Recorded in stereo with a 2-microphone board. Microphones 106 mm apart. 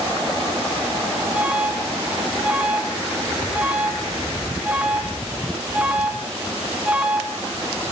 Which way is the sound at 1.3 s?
10° right (ahead or behind).